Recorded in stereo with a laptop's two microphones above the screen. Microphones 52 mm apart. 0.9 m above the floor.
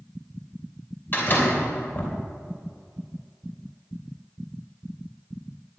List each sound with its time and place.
1.1 s a door slam: 45° left (ahead or behind), 3 m